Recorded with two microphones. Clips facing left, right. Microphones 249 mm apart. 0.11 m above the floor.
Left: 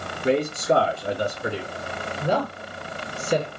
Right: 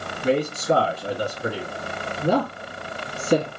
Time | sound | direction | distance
0.2 | a man speaking | 35° right (ahead or behind) | 1.7 m
2.2 | a woman speaking | 40° right (ahead or behind) | 2 m